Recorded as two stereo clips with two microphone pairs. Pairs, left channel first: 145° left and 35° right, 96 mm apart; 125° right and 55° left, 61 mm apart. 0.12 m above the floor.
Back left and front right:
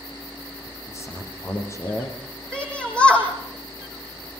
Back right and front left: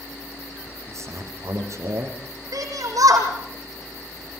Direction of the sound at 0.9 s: 85° left.